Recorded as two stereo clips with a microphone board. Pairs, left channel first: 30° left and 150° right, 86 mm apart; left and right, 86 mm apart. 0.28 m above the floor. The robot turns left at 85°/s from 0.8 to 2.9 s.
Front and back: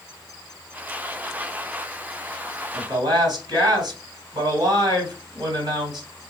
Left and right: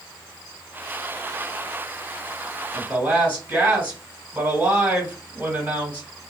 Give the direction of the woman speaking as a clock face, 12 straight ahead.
5 o'clock.